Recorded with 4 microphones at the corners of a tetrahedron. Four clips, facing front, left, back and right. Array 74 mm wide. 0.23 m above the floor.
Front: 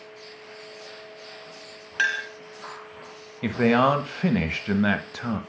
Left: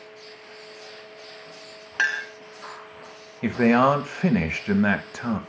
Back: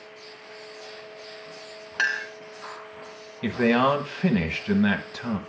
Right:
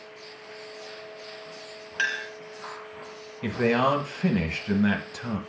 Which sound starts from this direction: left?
A man speaking, at 3.4 s.